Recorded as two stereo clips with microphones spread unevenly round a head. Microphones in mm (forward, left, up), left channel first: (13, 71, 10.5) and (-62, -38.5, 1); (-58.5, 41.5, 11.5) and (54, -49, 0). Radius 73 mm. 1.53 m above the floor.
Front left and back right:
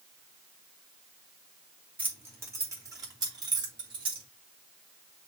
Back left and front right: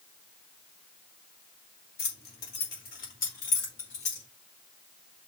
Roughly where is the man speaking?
I don't hear a man speaking.